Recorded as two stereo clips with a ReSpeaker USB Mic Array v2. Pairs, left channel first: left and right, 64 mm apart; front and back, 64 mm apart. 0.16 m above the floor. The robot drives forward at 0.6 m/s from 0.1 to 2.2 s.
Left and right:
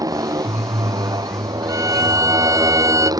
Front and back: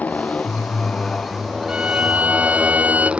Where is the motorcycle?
65° right; by 3.2 s 105° right.